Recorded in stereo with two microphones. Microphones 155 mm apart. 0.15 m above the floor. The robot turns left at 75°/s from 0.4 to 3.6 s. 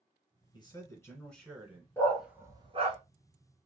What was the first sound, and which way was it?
A man speaking, 70° left.